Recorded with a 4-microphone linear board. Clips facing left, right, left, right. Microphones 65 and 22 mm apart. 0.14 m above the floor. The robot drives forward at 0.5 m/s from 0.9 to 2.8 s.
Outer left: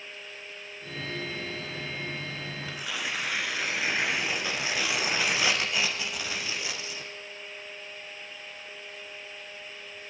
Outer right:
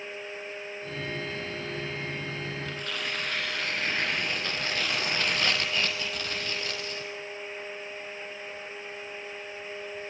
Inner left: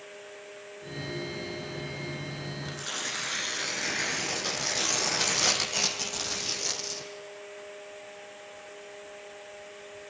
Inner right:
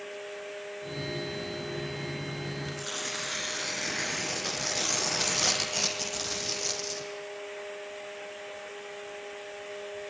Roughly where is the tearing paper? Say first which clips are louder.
Even, even; centre.